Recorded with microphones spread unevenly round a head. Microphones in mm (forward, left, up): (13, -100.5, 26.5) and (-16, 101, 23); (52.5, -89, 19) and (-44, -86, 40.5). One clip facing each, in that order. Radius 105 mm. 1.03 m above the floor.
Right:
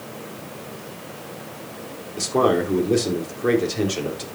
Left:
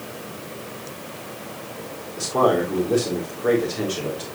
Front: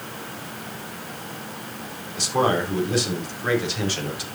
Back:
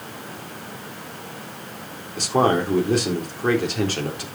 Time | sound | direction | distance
2.2 | a man speaking | 145° right | 3.5 m